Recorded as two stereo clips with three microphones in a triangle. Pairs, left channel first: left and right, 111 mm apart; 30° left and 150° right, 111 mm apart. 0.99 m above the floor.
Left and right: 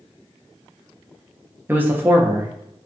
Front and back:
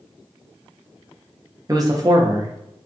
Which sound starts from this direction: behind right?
A man speaking, at 1.7 s.